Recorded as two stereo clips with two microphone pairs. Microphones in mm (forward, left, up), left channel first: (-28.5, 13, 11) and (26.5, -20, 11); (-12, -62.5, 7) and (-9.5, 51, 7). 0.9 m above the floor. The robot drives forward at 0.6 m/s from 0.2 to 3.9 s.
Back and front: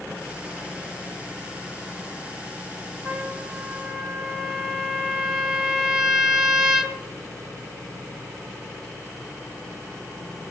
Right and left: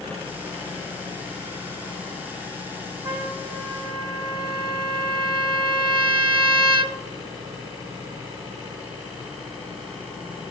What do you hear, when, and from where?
3.0 s a trumpet: 35° left, 1.6 m; by 7.0 s 50° left, 1.3 m